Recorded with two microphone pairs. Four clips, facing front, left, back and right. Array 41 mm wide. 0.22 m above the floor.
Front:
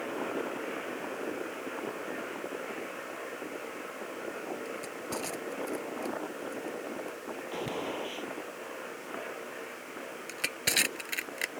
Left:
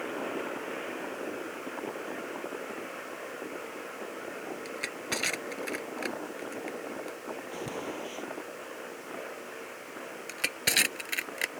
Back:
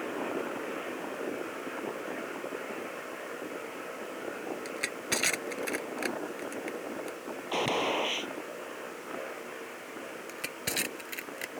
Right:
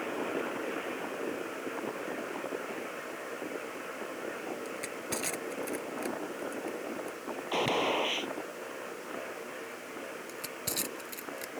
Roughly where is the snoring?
I don't hear snoring.